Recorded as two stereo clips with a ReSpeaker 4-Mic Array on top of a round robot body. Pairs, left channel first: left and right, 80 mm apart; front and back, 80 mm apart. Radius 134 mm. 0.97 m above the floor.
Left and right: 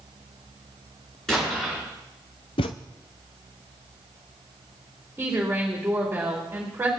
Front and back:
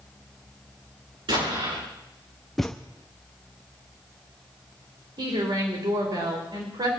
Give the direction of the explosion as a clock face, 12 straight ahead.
6 o'clock.